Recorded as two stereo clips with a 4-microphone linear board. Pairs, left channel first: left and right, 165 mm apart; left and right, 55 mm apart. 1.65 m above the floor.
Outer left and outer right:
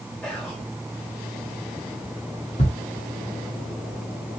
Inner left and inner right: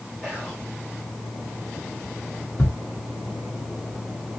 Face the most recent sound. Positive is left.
turn(degrees=45)  # may be behind; listen again after turning